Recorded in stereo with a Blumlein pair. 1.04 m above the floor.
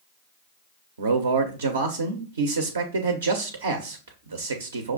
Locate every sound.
1.0 s a man speaking: 65° right, 0.5 m